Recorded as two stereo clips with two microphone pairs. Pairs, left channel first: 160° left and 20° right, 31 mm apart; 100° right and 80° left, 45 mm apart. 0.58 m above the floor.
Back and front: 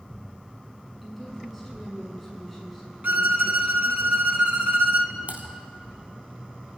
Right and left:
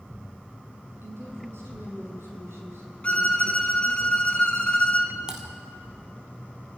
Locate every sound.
1.0 s a woman speaking: 65° left, 6.5 m
3.0 s a violin: 35° right, 1.6 m
5.3 s typing on a keyboard: 10° left, 2 m